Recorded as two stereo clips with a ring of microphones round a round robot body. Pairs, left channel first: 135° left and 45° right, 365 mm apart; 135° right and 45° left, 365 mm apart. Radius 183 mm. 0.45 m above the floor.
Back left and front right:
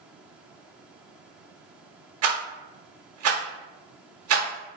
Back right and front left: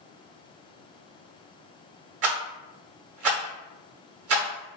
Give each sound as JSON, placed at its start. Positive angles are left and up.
{"t": 2.2, "sound": "a rattle", "azimuth_deg": 0, "distance_m": 0.8}